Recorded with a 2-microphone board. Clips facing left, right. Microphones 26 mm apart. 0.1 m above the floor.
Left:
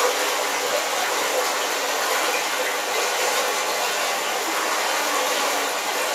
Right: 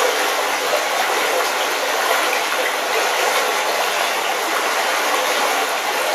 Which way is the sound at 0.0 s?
55° right (ahead or behind).